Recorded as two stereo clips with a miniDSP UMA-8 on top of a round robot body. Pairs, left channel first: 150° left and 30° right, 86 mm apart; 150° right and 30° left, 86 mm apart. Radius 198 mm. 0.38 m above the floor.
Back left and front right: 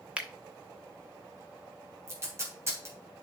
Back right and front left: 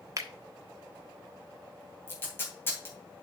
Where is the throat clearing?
No throat clearing in this recording.